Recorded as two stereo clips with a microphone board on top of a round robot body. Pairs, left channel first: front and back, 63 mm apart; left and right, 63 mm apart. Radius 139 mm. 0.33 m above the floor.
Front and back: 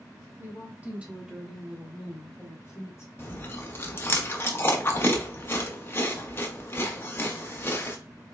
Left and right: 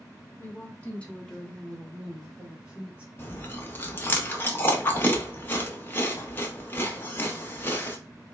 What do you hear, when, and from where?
0.4 s a woman speaking: 140° left, 1.9 m; by 3.1 s 25° right, 2.0 m
3.2 s chewing: 45° left, 1.1 m